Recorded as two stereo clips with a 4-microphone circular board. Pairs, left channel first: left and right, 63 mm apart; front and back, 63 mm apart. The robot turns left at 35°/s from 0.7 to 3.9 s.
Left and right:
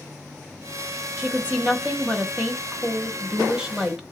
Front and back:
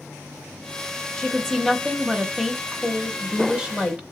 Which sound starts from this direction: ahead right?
A woman speaking, at 1.2 s.